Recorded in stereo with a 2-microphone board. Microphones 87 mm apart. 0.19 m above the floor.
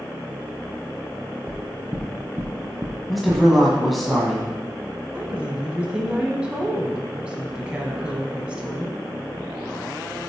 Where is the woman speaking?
15° right (ahead or behind), 1.3 m.